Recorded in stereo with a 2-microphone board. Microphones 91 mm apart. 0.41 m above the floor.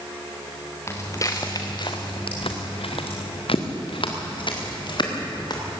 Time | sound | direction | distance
0.9 | footsteps | 30° left (ahead or behind) | 2.5 m